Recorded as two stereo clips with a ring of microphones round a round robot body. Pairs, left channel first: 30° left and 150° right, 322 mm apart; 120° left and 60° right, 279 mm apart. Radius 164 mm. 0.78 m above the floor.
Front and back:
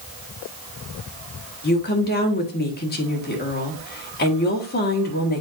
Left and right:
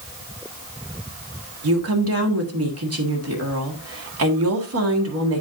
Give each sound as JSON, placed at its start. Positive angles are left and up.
{"t": 1.6, "sound": "a woman speaking", "azimuth_deg": -30, "distance_m": 1.7}